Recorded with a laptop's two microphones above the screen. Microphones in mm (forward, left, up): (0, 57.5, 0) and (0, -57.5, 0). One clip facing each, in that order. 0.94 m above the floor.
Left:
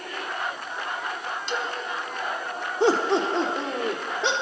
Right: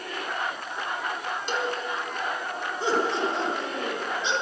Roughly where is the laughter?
Left.